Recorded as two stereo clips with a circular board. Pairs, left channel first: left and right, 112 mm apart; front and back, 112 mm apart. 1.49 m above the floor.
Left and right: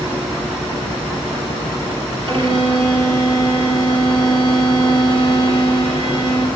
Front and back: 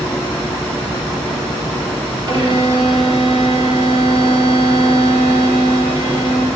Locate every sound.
2.3 s a violin: 135° right, 8.5 m